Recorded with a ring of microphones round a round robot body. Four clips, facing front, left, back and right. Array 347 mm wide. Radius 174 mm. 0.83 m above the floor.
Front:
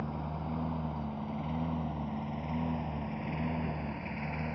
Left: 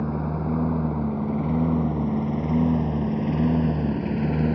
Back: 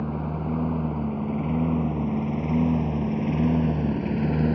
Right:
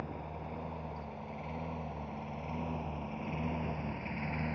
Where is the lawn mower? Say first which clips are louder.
Left 15 dB, back 9 dB; 120° left; by 4.6 s 135° left.